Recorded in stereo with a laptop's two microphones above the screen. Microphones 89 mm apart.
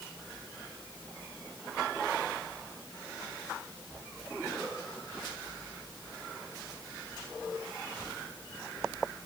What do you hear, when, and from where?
Only background noise.